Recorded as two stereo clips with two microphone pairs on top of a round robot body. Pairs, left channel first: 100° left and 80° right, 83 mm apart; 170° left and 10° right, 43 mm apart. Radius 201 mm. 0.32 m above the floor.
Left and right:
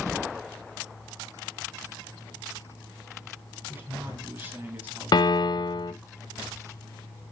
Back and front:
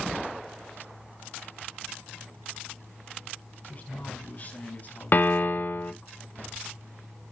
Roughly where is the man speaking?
Behind right.